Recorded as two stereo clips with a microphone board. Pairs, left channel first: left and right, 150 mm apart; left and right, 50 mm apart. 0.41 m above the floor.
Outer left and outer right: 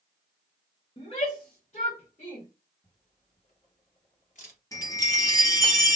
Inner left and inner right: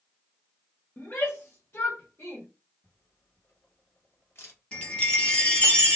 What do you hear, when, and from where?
1.0 s a shout: 40° left (ahead or behind), 1.1 m; by 2.5 s 50° left (ahead or behind), 1.5 m
2.8 s a camera shutter: 60° left (ahead or behind), 1.7 m
4.7 s a chime: 25° left (ahead or behind), 1.0 m